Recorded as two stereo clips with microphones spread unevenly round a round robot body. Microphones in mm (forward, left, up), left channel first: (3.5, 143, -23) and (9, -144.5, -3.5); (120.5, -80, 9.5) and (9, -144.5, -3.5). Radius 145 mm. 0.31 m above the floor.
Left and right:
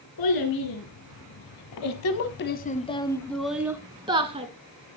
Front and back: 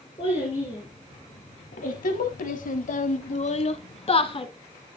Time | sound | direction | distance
0.2 | a child speaking | 100° left | 2 m